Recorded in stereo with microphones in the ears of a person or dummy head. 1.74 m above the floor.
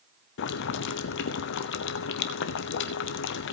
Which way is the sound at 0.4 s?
65° left (ahead or behind).